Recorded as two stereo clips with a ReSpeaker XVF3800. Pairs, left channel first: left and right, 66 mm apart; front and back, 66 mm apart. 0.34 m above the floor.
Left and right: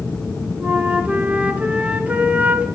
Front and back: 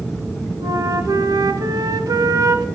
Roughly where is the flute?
Behind right.